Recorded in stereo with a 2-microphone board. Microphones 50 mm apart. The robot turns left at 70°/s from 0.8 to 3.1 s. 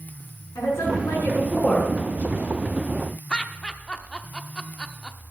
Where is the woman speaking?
90° left, 6 m; by 1.9 s 10° left, 6 m.